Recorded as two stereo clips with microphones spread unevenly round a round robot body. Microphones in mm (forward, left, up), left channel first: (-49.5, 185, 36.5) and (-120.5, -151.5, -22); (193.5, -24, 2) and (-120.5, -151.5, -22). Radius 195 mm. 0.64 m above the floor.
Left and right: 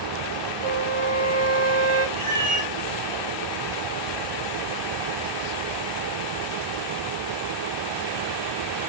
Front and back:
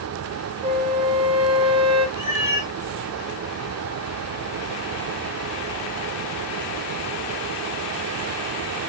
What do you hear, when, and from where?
0.6 s a flute: 80° right, 0.5 m
2.2 s a cat meowing: 15° right, 1.4 m